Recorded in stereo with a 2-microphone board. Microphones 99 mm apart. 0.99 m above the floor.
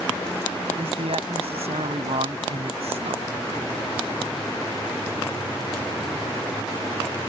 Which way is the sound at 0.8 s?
75° right (ahead or behind).